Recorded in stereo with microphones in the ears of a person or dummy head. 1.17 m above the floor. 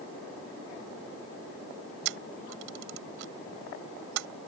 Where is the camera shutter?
75° right (ahead or behind).